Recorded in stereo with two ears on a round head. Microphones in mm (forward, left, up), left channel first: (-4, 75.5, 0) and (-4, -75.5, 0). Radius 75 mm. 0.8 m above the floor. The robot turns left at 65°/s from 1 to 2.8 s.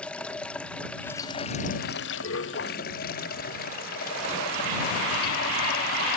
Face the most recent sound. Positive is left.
turn(degrees=55)